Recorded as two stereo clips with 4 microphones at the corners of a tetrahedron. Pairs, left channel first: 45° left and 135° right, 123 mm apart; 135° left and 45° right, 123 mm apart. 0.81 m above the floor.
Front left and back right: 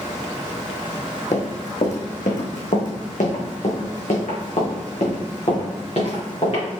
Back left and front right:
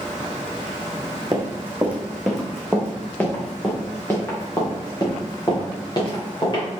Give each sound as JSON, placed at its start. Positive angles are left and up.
{"t": 1.3, "sound": "running footsteps", "azimuth_deg": 20, "distance_m": 2.0}